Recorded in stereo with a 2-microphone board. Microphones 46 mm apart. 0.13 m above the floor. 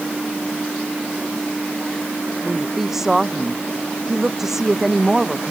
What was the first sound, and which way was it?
A woman speaking, 10° right (ahead or behind).